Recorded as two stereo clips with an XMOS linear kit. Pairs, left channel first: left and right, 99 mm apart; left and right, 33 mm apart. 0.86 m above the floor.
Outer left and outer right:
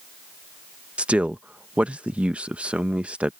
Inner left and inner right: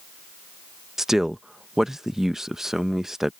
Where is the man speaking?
10° right (ahead or behind).